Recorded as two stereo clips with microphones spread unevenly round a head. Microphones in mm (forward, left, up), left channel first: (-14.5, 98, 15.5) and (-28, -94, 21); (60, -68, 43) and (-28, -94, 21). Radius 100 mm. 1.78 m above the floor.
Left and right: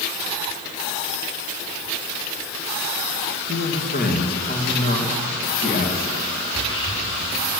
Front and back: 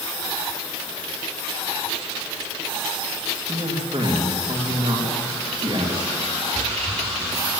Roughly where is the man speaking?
Behind left.